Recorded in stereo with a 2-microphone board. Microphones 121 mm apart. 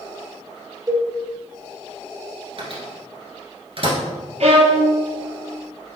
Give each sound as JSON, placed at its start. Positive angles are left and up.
{"t": 0.9, "sound": "a cowbell", "side_deg": -30, "distance_m": 0.9}
{"t": 2.6, "sound": "a microwave", "side_deg": -50, "distance_m": 1.3}
{"t": 4.4, "sound": "a violin", "side_deg": -60, "distance_m": 0.8}